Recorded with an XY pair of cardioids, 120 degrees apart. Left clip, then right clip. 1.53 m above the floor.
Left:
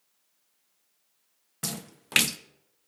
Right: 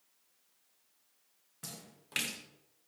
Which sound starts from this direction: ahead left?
A splash, at 1.6 s.